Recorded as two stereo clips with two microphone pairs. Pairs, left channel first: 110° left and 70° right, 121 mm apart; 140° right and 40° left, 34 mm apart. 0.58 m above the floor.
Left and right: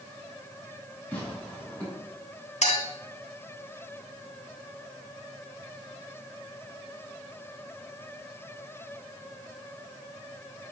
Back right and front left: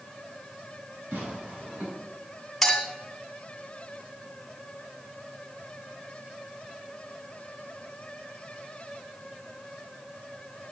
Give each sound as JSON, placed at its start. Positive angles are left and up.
{"t": 1.1, "sound": "tearing paper", "azimuth_deg": 35, "distance_m": 5.0}
{"t": 2.6, "sound": "a clink", "azimuth_deg": 130, "distance_m": 1.6}